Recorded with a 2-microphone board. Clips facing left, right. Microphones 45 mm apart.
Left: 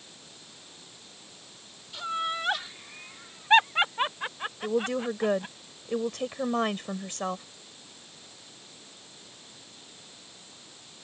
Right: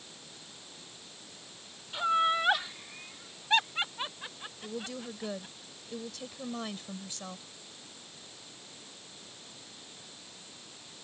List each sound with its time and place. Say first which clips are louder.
1.9 s laughter: right 4 dB; 25° right (ahead or behind); by 5.5 s 45° left (ahead or behind)
4.6 s a woman speaking: left 12 dB; 55° left (ahead or behind)